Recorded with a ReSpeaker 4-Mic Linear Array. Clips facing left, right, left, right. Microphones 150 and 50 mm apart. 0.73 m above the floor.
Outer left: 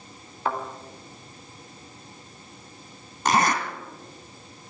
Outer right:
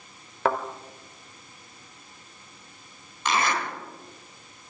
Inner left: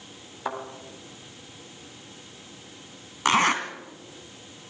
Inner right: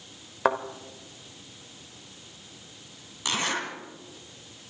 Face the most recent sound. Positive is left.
turn(degrees=45)  # may be behind; listen again after turning